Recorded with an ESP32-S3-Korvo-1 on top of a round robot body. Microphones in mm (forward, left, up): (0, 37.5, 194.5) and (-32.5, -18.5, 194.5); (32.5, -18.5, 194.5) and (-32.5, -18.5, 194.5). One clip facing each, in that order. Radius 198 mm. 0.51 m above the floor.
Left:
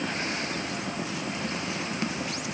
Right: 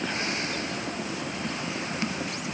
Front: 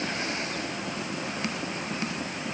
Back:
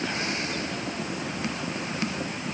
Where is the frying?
No frying in this recording.